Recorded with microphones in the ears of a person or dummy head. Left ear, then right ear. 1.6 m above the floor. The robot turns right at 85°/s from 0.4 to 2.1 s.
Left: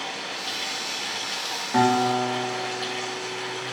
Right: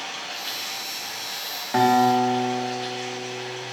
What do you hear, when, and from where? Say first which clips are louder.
0.0 s running water: left 1 dB; 10° right, 0.8 m; by 3.7 s 135° left, 0.8 m
1.7 s a guitar: right 3 dB; 170° right, 0.6 m; by 3.6 s 140° right, 0.6 m